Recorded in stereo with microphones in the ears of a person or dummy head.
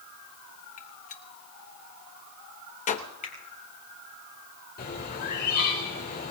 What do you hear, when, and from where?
0.8 s a gunshot: 45° left (ahead or behind), 1.0 m
3.2 s a finger snap: 40° left (ahead or behind), 4.5 m
4.8 s a bird: 55° left (ahead or behind), 5 m